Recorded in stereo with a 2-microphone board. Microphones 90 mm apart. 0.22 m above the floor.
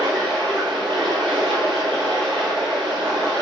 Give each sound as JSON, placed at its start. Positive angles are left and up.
{"t": 0.0, "sound": "running water", "side_deg": -80, "distance_m": 4.0}